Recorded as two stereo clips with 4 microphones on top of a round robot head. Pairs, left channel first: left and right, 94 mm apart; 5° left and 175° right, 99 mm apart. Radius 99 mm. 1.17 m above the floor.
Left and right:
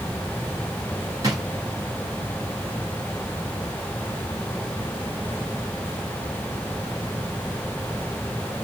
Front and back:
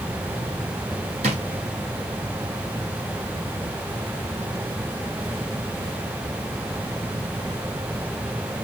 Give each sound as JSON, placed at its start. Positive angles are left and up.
{"t": 1.2, "sound": "a drawer", "azimuth_deg": -155, "distance_m": 0.7}